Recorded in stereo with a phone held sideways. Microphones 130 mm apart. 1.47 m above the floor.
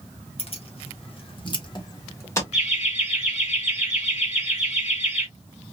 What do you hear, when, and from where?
0.4 s keys jangling: 50° left (ahead or behind), 1.1 m; by 2.4 s 20° left (ahead or behind), 1.0 m
2.5 s laughter: 60° left (ahead or behind), 1.8 m